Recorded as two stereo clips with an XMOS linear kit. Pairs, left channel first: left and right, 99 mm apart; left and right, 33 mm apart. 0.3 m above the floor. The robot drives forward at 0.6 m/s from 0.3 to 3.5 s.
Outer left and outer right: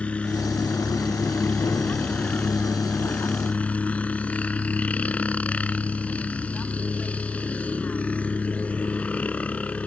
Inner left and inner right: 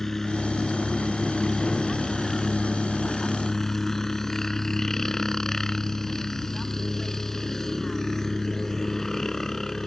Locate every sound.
0.0 s a helicopter: 10° left (ahead or behind); by 9.9 s 15° left (ahead or behind)